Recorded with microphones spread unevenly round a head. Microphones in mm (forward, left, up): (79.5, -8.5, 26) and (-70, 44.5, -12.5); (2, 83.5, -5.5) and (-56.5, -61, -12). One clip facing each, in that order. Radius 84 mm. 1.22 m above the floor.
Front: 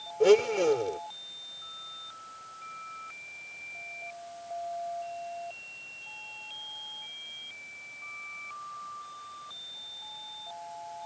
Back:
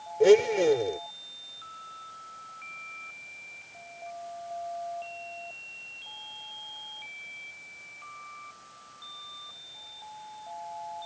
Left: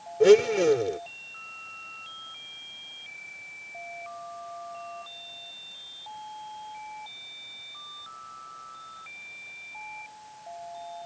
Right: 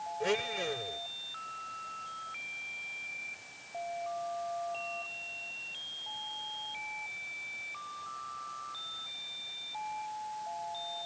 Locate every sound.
0.2 s a blender: 80° left